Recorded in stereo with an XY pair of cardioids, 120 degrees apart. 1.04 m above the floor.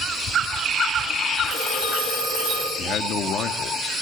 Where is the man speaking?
60° left, 2 m.